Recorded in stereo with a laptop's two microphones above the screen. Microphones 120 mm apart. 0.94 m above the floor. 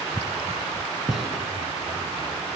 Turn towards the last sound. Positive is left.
turn(degrees=0)  # may be behind; listen again after turning